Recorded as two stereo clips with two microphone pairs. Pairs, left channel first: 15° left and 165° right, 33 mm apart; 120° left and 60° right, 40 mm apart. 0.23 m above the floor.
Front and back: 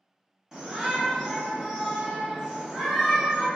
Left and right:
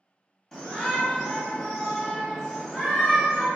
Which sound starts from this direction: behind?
A shout, at 0.5 s.